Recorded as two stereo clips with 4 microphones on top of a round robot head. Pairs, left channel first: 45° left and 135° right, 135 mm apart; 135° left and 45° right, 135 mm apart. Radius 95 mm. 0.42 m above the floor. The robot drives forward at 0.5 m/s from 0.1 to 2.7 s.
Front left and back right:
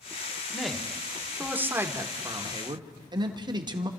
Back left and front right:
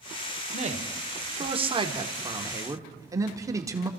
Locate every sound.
0.5 s a man speaking: 45° right, 1.7 m; by 3.9 s 95° right, 1.4 m